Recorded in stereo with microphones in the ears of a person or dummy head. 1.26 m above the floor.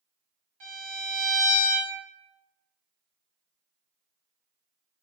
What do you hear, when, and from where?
0.6 s a violin: 45° right (ahead or behind), 1.4 m